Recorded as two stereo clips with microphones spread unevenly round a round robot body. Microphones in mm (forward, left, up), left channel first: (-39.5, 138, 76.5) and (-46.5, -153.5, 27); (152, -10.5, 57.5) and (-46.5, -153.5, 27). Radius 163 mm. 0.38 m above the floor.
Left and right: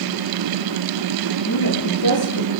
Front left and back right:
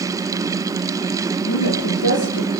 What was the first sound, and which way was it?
A woman speaking, 55° left.